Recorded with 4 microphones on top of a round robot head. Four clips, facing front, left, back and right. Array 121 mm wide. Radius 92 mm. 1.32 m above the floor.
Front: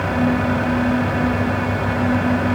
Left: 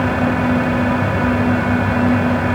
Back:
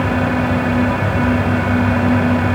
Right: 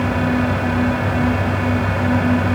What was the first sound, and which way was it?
Only background noise.